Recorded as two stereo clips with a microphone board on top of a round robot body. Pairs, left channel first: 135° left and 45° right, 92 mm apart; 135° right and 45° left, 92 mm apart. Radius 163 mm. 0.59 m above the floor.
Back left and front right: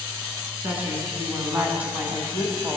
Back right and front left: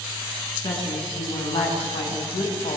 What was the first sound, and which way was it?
A woman speaking, 115° right.